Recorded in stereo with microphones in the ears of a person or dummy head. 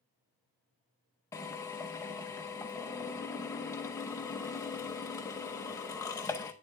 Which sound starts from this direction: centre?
A drill, at 1.3 s.